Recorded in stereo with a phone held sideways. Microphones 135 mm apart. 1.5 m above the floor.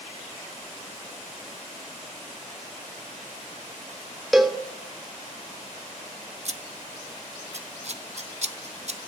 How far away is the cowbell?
About 0.8 m.